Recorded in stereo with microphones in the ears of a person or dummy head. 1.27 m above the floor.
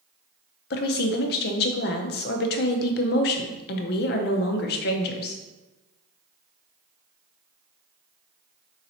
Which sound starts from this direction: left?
A woman speaking, at 0.7 s.